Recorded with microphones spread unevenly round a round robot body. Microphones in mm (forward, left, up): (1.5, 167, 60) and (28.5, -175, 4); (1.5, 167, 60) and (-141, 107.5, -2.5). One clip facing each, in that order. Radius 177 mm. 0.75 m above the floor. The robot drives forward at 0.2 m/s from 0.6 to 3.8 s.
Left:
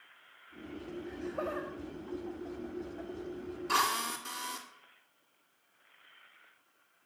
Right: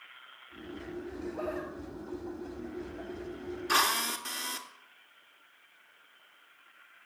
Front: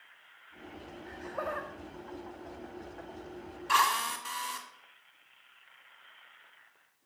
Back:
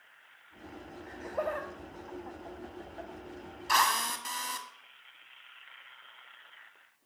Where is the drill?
160° right, 1.7 m.